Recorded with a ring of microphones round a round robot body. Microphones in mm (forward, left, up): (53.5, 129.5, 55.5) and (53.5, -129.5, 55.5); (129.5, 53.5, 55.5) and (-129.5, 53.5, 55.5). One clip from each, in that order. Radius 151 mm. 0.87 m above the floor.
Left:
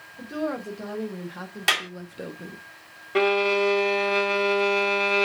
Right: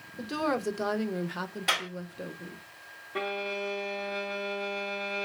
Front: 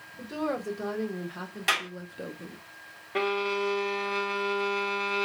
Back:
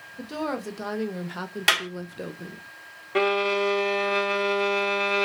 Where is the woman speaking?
120° right, 1.1 m; by 2.6 s 105° left, 0.6 m.